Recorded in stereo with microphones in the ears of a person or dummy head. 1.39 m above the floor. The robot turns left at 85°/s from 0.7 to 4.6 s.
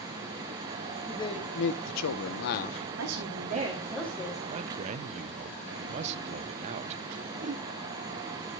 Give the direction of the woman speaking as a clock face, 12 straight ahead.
2 o'clock.